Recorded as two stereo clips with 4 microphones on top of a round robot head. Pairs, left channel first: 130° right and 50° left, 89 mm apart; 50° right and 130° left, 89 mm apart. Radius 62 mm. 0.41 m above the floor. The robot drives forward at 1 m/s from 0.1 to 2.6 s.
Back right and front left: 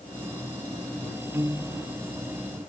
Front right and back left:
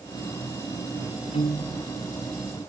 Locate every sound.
1.3 s a piano: 20° right